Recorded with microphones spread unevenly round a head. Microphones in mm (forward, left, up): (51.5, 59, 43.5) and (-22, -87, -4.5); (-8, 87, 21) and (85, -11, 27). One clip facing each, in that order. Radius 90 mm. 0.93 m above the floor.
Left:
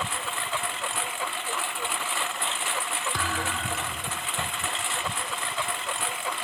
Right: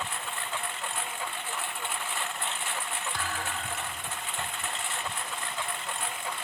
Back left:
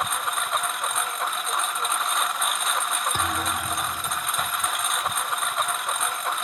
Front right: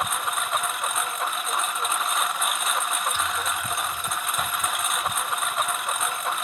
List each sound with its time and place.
0.0 s a lawn mower: 45° left
3.1 s a thud: 90° left